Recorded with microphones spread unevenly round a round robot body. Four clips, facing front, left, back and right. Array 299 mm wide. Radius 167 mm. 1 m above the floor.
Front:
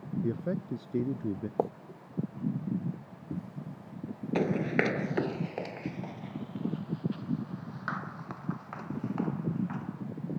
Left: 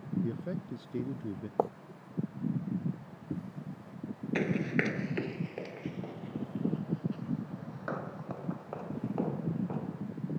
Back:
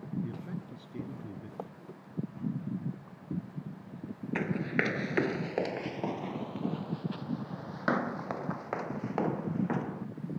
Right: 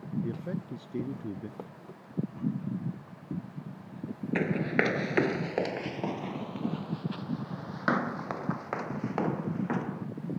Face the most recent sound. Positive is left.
turn(degrees=-115)